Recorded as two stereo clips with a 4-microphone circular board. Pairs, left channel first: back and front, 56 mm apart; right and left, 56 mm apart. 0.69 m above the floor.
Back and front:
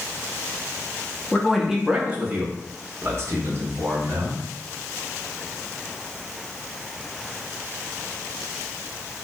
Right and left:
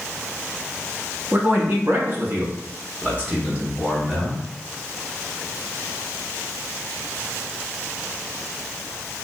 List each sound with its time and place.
1.3 s a man speaking: 105° left, 0.8 m; by 4.4 s 20° left, 1.9 m